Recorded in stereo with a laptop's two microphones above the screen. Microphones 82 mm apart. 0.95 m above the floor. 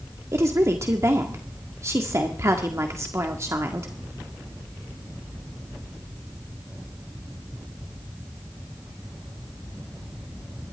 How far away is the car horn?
I don't hear a car horn.